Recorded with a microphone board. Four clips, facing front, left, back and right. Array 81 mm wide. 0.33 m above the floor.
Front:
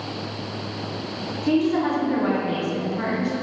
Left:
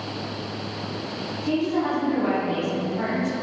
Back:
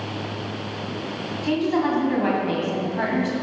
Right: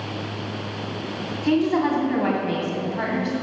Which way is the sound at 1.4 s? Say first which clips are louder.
Right 4 dB, front 1 dB; 110° right.